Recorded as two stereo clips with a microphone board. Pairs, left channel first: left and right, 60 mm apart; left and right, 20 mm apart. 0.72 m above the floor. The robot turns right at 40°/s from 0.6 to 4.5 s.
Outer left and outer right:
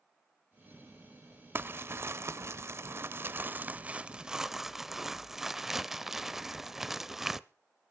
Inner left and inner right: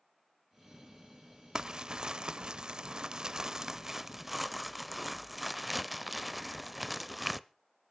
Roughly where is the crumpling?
Behind right.